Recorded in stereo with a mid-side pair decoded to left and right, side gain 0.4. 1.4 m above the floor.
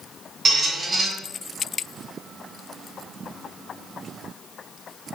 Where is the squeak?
45° right, 0.8 m.